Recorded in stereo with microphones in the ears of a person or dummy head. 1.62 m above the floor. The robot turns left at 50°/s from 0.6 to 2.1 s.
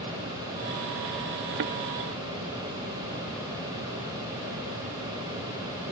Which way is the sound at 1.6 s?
45° right (ahead or behind).